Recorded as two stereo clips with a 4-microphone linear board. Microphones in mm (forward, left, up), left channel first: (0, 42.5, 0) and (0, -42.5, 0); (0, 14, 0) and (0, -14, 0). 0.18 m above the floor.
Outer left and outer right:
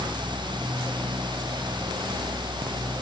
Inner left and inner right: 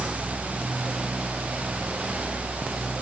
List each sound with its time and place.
Only background noise.